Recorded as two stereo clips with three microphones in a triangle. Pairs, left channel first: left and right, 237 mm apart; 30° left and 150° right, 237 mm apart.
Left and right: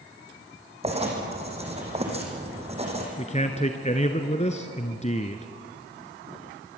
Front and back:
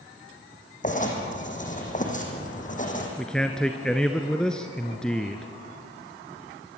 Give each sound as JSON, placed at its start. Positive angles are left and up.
{"t": 0.8, "sound": "writing", "azimuth_deg": -25, "distance_m": 4.0}
{"t": 3.2, "sound": "a man speaking", "azimuth_deg": 115, "distance_m": 1.2}